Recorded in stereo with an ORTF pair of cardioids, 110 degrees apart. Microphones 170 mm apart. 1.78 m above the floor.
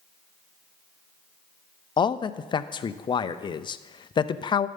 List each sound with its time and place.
2.0 s a man speaking: 30° left, 0.6 m